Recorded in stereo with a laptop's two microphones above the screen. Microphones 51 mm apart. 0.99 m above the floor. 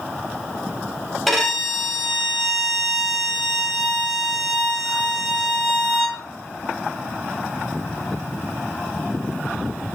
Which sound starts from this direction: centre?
A violin, at 1.3 s.